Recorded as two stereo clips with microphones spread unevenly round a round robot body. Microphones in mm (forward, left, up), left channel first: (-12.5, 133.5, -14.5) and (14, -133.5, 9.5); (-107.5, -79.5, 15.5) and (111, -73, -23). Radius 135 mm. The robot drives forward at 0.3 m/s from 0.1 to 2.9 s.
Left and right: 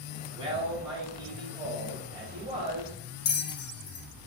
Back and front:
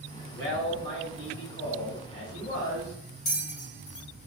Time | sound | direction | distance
0.3 | a man speaking | 155° right | 1.4 m
3.2 | a bell | 135° left | 0.5 m